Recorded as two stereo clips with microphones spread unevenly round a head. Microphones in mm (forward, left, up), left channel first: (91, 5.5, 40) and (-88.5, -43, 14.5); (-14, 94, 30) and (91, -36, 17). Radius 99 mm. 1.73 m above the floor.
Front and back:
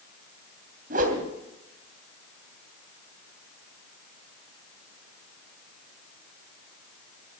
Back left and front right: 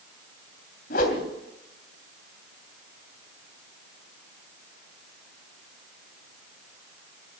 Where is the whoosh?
150° left, 2.5 m.